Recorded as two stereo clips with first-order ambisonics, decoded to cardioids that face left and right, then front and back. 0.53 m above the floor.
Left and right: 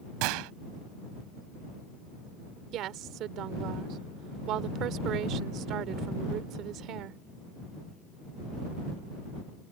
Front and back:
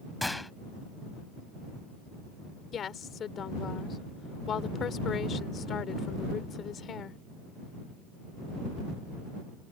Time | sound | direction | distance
0.2 | a gunshot | 85° right | ?
2.7 | a woman speaking | 55° right | ?